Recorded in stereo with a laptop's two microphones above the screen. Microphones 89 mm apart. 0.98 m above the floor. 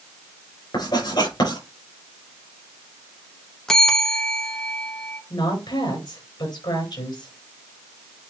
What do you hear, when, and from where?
0.7 s writing: 50° left (ahead or behind), 4 m
3.7 s a bell: 5° left (ahead or behind), 1.1 m
5.3 s a woman speaking: 55° left (ahead or behind), 5 m